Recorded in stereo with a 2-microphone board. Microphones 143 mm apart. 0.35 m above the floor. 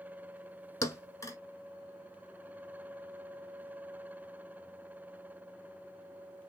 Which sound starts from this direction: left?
A thud, at 0.8 s.